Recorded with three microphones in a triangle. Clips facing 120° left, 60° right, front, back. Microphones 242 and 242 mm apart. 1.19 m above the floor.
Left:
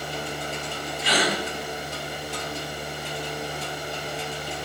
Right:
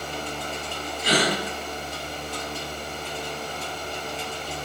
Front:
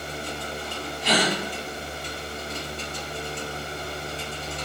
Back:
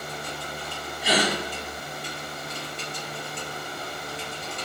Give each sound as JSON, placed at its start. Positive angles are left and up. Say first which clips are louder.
{"t": 1.0, "sound": "a gasp", "louder": "right 2 dB, even", "azimuth_deg": -100, "distance_m": 1.3}